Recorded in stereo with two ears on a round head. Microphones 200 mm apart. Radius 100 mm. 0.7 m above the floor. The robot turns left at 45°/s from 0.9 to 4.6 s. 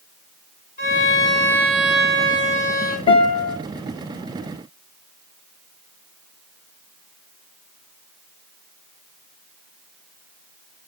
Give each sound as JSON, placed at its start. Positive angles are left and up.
{"t": 0.8, "sound": "a violin", "azimuth_deg": 35, "distance_m": 2.0}
{"t": 3.1, "sound": "a guitar", "side_deg": 25, "distance_m": 2.0}